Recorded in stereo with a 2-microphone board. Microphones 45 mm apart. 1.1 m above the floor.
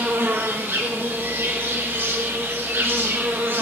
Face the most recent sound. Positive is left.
turn(degrees=-55)  # may be behind; listen again after turning